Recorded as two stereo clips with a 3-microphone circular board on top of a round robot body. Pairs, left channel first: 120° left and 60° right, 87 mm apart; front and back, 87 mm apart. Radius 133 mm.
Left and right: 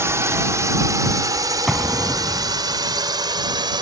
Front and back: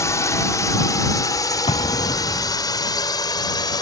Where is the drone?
25° right; by 3.8 s 35° right.